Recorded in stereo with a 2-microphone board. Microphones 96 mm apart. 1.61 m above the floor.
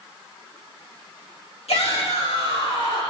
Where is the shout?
80° left, 3.5 m; by 3.1 s 65° left (ahead or behind), 4 m.